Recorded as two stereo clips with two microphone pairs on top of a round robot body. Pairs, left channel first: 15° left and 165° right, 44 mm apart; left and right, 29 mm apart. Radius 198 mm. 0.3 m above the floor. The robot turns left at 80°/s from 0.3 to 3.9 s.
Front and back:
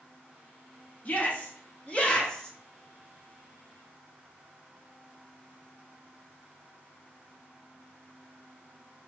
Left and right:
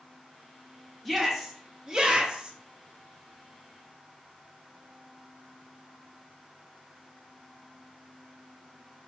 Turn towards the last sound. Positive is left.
turn(degrees=165)